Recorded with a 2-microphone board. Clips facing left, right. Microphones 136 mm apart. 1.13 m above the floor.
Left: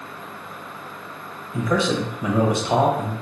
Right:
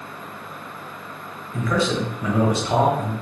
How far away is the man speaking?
About 0.7 m.